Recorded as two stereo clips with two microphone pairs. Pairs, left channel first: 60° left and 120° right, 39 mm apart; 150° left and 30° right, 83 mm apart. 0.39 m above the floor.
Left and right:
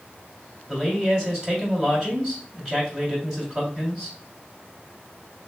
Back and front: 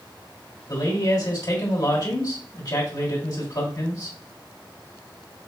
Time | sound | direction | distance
0.7 | a man speaking | 165° left | 2 m